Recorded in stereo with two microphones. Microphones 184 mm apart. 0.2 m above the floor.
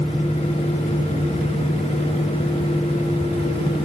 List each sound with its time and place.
Only background noise.